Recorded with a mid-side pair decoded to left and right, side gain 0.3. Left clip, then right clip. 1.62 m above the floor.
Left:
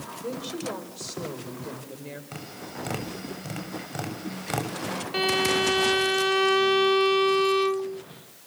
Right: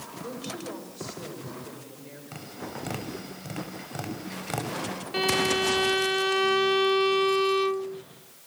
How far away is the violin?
About 0.5 m.